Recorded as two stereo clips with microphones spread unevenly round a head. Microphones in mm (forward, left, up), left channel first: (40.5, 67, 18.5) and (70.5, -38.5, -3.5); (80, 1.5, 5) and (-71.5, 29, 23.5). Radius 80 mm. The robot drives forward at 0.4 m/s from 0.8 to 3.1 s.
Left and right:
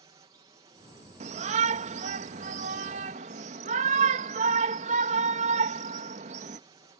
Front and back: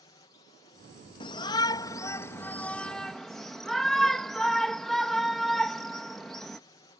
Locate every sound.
0.0 s a drone: 60° right
1.2 s a shout: 70° right; by 6.6 s 100° right